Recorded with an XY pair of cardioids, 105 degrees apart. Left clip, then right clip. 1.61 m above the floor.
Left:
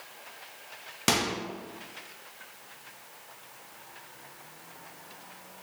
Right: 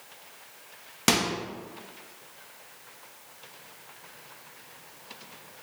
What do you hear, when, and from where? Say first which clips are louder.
1.1 s a microwave: right 2 dB; 15° right, 0.6 m